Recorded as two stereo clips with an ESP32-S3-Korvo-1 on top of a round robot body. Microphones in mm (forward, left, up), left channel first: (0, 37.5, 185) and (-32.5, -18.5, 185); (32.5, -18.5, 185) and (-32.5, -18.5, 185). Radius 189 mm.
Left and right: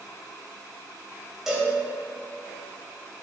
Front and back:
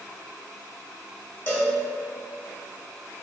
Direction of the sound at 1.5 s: 30° right.